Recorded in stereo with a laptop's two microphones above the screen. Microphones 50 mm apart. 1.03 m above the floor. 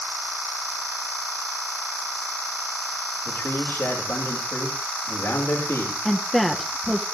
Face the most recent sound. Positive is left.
turn(degrees=0)  # may be behind; listen again after turning